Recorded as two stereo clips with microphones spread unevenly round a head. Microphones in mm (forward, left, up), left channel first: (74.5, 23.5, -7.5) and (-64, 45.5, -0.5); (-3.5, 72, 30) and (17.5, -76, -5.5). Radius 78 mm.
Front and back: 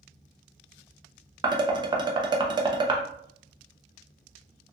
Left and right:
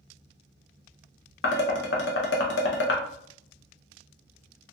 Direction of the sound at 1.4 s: 110° left.